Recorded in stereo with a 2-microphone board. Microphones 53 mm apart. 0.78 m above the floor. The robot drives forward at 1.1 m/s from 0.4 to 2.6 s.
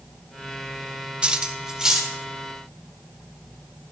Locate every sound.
1.2 s cutlery clinking: 20° right (ahead or behind), 0.6 m; by 2.1 s 5° right (ahead or behind), 1.6 m